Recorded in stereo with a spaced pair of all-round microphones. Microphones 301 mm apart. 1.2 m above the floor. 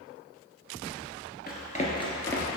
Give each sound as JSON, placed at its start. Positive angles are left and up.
{"t": 1.5, "sound": "running footsteps", "side_deg": 30, "distance_m": 1.4}